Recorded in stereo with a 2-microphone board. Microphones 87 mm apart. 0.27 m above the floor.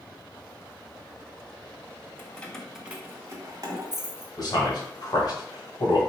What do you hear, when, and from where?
2.2 s keys jangling: 25° left (ahead or behind), 0.7 m; by 4.3 s 55° right (ahead or behind), 1.1 m
4.4 s a man speaking: 50° left (ahead or behind), 1.5 m